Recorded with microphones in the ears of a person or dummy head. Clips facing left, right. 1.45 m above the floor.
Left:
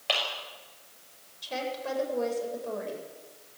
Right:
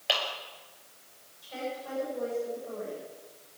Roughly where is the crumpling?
No crumpling in this recording.